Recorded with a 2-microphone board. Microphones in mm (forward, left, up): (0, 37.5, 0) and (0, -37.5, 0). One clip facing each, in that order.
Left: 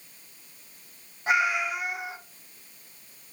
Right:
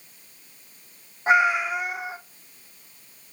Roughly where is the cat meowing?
Right.